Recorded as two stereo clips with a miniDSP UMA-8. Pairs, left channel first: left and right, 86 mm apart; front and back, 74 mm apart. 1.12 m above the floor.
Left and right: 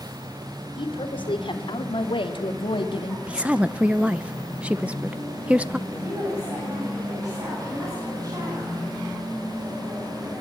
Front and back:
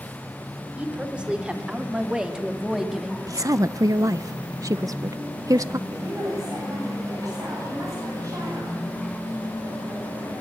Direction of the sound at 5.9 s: 135° right.